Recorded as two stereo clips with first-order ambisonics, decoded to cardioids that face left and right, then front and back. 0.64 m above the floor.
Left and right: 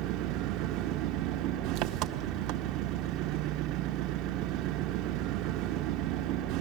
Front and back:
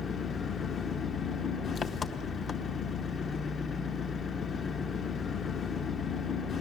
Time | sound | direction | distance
0.0 | an engine running | 65° right | 0.8 m